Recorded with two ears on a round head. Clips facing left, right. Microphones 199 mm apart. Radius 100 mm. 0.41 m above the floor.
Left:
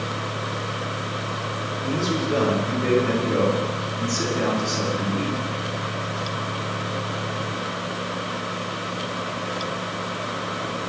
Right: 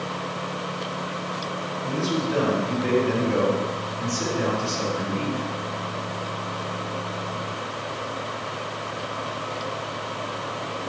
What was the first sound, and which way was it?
A man speaking, 60° left (ahead or behind).